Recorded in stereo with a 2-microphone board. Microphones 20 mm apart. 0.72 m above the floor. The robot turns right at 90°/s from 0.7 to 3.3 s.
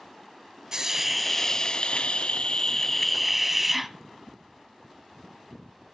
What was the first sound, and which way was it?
A hiss, 40° right.